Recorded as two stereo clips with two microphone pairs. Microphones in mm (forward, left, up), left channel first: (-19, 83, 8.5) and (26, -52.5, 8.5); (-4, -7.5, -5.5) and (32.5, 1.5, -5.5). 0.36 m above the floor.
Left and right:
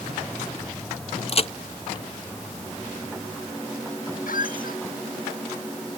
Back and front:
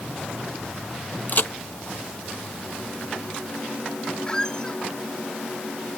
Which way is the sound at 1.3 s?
155° left.